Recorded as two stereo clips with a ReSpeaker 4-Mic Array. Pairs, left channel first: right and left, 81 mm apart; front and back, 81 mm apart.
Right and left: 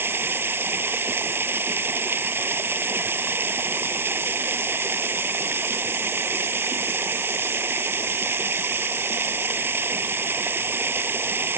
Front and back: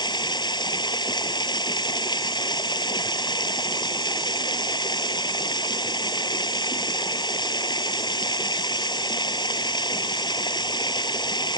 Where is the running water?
30° left.